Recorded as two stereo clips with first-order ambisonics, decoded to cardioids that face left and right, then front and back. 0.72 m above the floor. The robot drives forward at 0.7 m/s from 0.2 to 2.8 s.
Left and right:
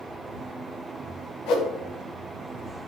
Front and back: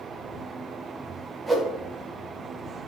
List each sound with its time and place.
1.5 s a whoosh: 105° left, 0.5 m; by 1.7 s 120° left, 0.6 m